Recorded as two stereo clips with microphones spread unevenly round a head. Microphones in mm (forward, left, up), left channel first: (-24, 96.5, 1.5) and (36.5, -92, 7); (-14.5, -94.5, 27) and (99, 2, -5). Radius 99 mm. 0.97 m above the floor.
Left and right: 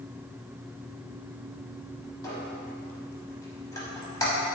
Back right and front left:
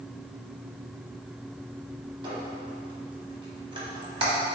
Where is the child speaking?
I don't hear a child speaking.